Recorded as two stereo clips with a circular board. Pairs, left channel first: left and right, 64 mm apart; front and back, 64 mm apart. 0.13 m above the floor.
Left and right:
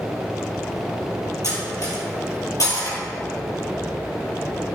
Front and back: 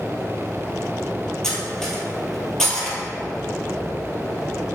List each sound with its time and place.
1.4 s cutlery clinking: 85° left, 2 m